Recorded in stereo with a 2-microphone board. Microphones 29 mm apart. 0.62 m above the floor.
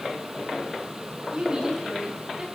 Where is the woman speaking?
25° right (ahead or behind), 5.5 m; by 2.5 s 15° right (ahead or behind), 6.5 m.